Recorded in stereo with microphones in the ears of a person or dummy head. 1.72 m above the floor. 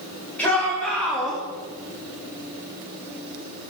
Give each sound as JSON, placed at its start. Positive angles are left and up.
{"t": 0.4, "sound": "a shout", "side_deg": 10, "distance_m": 5.0}